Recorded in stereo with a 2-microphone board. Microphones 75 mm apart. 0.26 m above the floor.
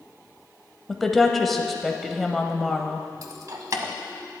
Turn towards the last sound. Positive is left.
turn(degrees=-50)  # may be behind; listen again after turning